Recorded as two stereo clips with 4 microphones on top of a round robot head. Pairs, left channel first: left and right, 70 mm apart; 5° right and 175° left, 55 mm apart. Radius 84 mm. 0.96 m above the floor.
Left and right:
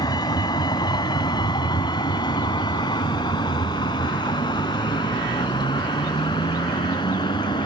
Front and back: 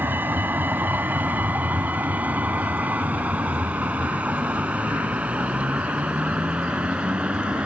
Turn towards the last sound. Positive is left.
turn(degrees=100)